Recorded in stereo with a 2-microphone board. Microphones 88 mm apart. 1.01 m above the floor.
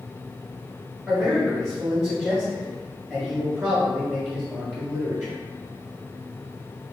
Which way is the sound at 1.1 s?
5° right (ahead or behind).